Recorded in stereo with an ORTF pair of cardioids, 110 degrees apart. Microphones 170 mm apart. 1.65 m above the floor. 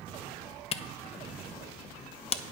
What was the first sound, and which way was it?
A camera shutter, 35° left.